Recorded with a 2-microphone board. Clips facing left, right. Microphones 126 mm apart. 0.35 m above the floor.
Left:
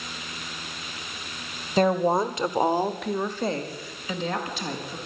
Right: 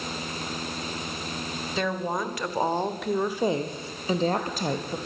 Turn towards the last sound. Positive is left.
turn(degrees=-45)  # may be behind; listen again after turning